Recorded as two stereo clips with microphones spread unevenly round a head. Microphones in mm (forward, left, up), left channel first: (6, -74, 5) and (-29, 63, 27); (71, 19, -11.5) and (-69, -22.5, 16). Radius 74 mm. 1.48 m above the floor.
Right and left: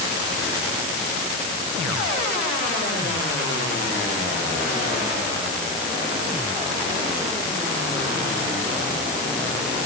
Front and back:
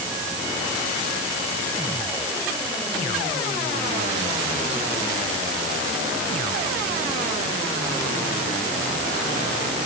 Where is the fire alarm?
No fire alarm in this recording.